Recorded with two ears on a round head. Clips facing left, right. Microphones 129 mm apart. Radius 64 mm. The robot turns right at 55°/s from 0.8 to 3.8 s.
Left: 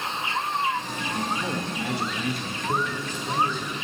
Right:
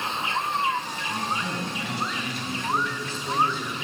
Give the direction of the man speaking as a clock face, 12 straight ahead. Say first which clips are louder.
Left 2 dB; 10 o'clock.